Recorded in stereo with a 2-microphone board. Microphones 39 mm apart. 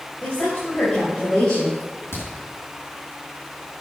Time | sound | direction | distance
0.2 | a woman speaking | 40° left (ahead or behind) | 4 m
1.8 | a crack | 90° left | 5.5 m